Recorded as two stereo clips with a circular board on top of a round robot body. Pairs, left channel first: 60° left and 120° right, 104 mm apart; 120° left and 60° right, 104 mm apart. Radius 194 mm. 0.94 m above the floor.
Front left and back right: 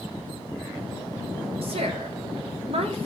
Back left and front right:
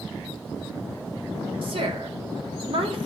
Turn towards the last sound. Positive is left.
turn(degrees=-95)